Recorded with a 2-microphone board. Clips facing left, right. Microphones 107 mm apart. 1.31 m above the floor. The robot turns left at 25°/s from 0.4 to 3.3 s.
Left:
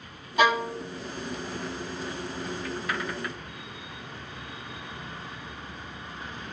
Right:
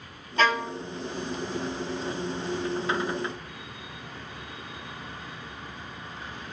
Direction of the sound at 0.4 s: 15° left (ahead or behind).